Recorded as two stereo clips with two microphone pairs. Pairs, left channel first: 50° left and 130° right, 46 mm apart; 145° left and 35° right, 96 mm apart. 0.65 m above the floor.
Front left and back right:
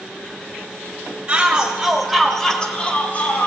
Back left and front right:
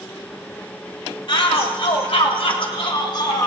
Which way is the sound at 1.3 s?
165° left.